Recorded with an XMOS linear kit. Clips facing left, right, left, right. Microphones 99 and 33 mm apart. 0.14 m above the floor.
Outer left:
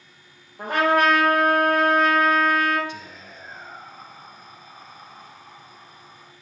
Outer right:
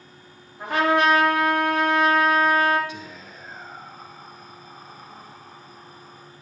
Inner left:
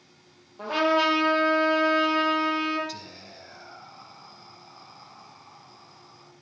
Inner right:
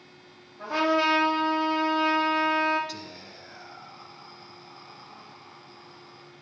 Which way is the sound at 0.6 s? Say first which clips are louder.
Outer left 1 dB, inner left 1 dB; 50° left (ahead or behind).